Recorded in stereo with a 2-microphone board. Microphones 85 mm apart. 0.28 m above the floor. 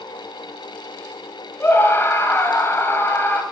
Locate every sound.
1.6 s a scream: 30° left (ahead or behind), 1.7 m